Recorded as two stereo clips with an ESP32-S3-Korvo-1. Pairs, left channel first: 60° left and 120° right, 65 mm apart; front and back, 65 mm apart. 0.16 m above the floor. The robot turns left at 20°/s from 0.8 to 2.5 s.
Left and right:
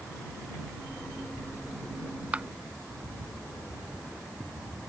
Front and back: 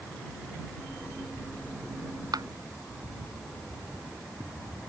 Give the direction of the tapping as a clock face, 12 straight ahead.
6 o'clock.